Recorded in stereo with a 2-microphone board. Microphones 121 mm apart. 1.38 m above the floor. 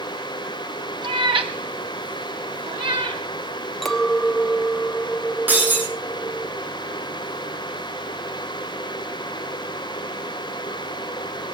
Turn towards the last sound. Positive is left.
turn(degrees=-15)  # may be behind; listen again after turning